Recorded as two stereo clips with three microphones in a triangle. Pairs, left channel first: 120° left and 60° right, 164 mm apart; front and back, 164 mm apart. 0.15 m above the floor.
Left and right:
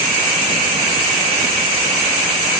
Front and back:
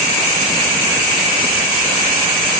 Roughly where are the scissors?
No scissors in this recording.